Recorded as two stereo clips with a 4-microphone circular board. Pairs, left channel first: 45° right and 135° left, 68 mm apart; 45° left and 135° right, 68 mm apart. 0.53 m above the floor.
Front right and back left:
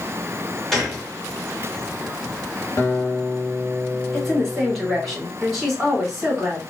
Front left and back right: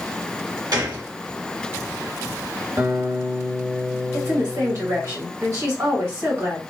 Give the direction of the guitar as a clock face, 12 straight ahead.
3 o'clock.